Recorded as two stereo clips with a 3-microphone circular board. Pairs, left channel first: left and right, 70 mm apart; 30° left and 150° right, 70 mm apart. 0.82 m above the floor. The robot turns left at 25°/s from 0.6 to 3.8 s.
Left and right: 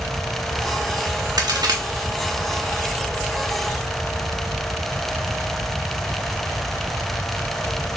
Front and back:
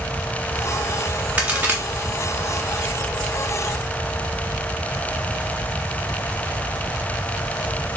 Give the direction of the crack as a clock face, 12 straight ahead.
3 o'clock.